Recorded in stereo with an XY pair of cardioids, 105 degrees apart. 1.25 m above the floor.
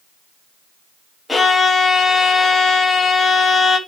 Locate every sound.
1.3 s a violin: 20° left, 3 m